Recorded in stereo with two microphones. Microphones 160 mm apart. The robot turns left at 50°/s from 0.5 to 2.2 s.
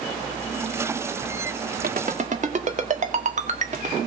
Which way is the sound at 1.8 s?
65° right (ahead or behind).